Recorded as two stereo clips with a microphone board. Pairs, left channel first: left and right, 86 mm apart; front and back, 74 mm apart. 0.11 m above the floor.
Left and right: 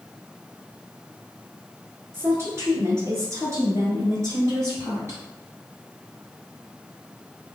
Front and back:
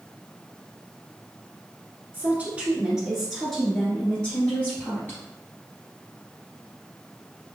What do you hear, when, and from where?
2.1 s a woman speaking: 130° right, 1.6 m; by 5.2 s 50° right, 1.9 m